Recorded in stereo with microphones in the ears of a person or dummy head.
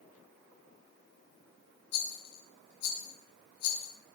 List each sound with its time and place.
1.9 s a rattle: 55° left (ahead or behind), 2.5 m